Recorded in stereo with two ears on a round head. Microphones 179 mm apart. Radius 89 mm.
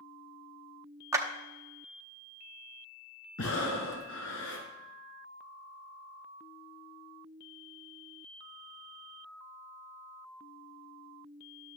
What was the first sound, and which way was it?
A clap, 15° right (ahead or behind).